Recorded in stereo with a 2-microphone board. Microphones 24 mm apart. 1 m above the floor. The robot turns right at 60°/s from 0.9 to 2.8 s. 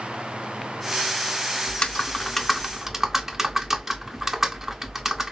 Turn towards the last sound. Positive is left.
turn(degrees=-165)